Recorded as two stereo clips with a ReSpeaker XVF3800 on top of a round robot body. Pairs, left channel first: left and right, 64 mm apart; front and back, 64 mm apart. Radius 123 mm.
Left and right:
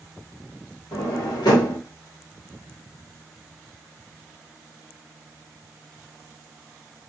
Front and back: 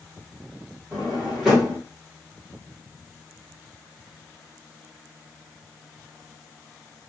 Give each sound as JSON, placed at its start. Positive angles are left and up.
{"t": 0.9, "sound": "a drawer", "azimuth_deg": 95, "distance_m": 1.0}